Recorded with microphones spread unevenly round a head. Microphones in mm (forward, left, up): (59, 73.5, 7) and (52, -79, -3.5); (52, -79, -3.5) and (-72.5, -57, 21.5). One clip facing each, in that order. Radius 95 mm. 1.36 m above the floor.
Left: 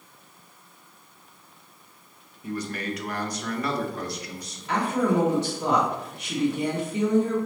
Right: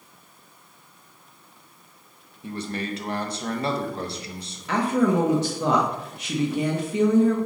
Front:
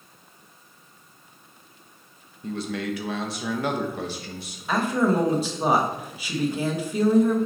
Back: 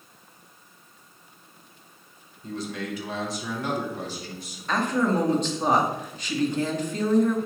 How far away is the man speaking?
About 1.5 m.